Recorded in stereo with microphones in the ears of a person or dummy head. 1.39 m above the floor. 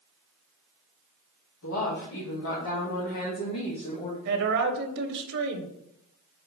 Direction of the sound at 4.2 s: 55° right (ahead or behind).